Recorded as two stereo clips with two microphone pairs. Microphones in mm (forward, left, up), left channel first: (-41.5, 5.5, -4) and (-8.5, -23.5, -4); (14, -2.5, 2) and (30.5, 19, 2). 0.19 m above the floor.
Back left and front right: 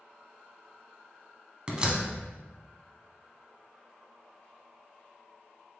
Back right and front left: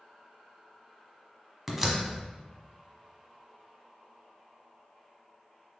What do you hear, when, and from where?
1.7 s a door slam: 15° right, 0.8 m